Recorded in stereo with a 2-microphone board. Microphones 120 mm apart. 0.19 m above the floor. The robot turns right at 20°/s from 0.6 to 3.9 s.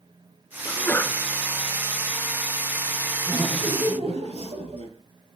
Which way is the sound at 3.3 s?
45° right (ahead or behind).